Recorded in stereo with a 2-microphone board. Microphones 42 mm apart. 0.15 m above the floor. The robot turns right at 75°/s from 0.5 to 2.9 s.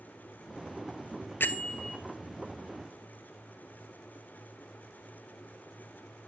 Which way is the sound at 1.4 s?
120° left.